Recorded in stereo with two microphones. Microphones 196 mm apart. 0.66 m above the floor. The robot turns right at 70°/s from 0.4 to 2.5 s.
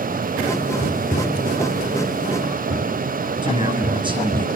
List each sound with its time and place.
0.8 s tapping: 60° left (ahead or behind), 1.3 m; by 4.4 s 60° right (ahead or behind), 1.3 m
3.4 s a man speaking: 25° right (ahead or behind), 5.5 m